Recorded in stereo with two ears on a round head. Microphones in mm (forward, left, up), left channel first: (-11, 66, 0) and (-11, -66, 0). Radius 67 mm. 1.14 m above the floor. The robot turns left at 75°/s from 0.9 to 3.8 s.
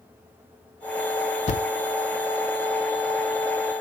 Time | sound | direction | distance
1.5 | a thud | 45° left (ahead or behind) | 1.0 m